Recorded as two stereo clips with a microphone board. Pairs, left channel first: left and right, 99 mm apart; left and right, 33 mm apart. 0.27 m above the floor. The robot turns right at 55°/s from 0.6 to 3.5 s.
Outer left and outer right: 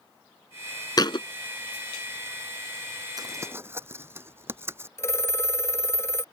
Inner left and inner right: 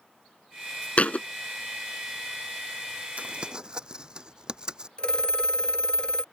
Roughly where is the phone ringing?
Left.